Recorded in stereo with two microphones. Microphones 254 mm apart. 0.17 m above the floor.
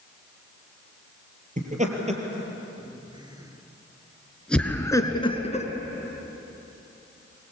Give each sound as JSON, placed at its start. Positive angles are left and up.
{"t": 1.6, "sound": "laughter", "side_deg": -30, "distance_m": 4.0}